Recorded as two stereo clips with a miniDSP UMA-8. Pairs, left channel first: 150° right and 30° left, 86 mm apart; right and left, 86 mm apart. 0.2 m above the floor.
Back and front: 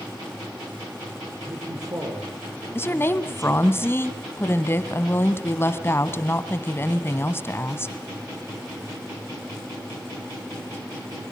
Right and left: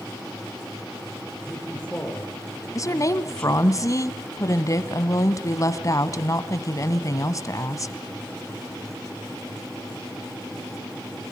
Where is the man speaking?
15° right, 6.5 m.